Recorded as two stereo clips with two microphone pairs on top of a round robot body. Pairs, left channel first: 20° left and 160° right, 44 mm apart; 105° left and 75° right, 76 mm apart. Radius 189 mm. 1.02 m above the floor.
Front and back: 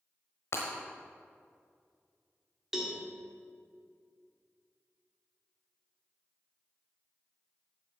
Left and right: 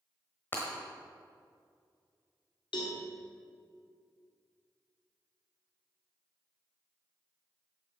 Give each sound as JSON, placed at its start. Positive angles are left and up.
{"t": 0.5, "sound": "breaking glass", "azimuth_deg": 45, "distance_m": 1.0}
{"t": 2.7, "sound": "a cowbell", "azimuth_deg": 120, "distance_m": 1.7}